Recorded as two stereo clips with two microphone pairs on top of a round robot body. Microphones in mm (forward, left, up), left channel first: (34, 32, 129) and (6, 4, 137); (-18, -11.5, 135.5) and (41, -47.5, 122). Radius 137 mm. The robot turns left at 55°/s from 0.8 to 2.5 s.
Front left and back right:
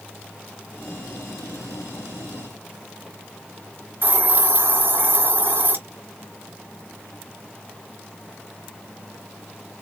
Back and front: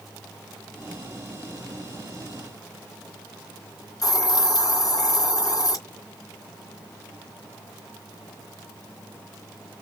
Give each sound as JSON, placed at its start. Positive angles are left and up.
{"t": 4.0, "sound": "a hiss", "azimuth_deg": -175, "distance_m": 3.0}